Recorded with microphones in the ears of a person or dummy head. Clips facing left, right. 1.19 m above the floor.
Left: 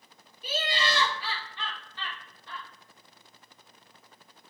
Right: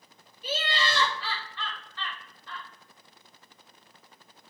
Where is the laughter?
15° left (ahead or behind), 1.8 m.